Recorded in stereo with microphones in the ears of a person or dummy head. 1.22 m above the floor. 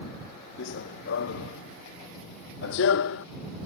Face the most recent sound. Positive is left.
turn(degrees=70)  # may be behind; listen again after turning